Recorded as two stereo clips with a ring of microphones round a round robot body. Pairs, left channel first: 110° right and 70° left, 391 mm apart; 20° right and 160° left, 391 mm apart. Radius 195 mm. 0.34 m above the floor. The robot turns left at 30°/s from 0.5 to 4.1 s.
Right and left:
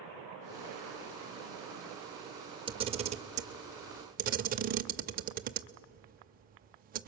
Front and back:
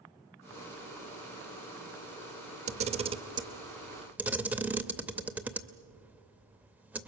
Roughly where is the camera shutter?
Behind left.